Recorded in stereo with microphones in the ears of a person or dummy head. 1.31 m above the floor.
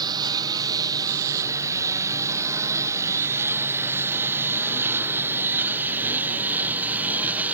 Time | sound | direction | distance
0.0 | a lawn mower | 25° right (ahead or behind) | ?